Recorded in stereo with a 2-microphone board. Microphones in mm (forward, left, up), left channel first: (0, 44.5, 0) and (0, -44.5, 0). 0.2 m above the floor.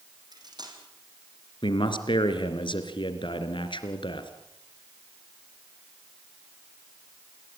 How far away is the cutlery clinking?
About 6 m.